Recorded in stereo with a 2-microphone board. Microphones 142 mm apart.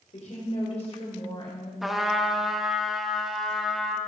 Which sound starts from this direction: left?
A woman speaking, at 0.1 s.